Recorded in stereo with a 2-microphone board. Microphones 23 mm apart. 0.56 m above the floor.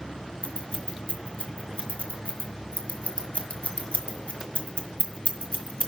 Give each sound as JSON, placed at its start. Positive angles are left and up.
{"t": 0.4, "sound": "scissors", "side_deg": 85, "distance_m": 1.6}